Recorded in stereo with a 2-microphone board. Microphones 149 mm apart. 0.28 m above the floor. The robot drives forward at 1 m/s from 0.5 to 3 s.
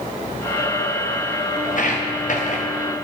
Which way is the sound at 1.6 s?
65° left (ahead or behind).